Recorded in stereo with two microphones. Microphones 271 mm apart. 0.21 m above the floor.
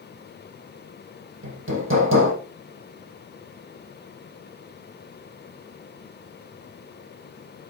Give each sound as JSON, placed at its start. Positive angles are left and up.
{"t": 1.4, "sound": "hammering", "side_deg": -50, "distance_m": 4.5}